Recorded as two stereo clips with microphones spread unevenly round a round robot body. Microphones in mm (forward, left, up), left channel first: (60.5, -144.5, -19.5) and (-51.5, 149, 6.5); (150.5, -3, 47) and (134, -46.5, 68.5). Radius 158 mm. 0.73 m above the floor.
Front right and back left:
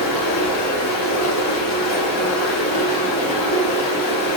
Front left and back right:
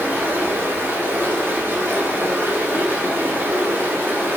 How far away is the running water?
About 1.0 m.